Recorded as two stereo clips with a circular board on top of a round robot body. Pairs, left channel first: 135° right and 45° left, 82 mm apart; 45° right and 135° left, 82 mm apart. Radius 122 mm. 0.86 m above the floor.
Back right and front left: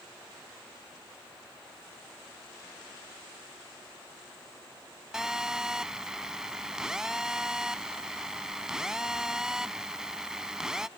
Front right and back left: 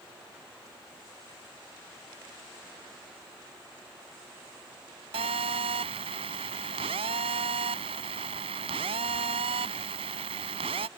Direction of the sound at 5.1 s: 130° left.